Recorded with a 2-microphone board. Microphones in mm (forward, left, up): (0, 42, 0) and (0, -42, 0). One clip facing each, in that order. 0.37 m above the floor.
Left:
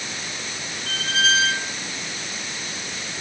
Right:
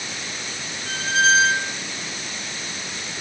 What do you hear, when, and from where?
0.9 s a squeak: 25° right (ahead or behind)